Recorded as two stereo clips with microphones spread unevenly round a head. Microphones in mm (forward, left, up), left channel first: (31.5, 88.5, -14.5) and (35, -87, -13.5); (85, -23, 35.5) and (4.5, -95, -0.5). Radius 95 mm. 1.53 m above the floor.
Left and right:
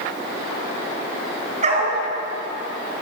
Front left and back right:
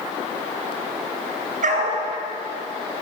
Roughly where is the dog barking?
Behind right.